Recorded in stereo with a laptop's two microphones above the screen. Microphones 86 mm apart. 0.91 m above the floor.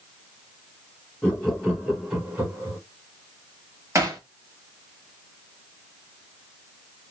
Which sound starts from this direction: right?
Hammering, at 4.0 s.